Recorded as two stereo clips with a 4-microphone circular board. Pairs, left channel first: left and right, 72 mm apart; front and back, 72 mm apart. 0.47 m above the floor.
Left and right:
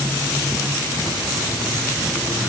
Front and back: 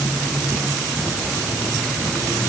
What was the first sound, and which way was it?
Only background noise.